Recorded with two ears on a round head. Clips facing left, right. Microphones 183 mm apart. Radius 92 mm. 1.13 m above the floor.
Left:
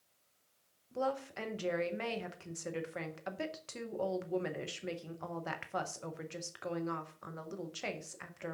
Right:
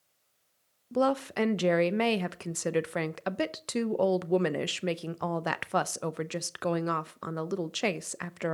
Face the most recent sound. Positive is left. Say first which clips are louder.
# right 10 dB
turn(degrees=-65)  # may be behind; listen again after turning